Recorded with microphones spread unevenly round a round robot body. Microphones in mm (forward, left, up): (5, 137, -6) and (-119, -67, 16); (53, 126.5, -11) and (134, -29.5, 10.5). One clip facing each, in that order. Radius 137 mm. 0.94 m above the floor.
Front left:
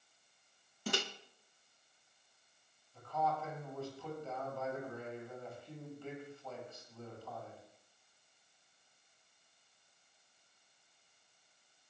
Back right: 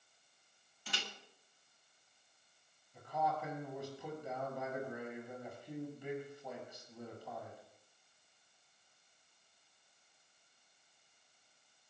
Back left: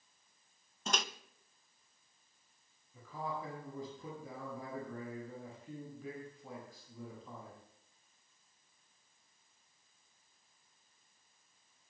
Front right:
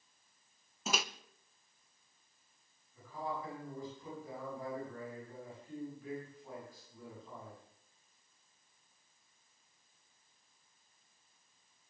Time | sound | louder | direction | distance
0.9 | a microwave | front left 11 dB, front right 1 dB | 25° left | 0.7 m
2.9 | a man speaking | front left 1 dB, front right 1 dB | 165° left | 6.5 m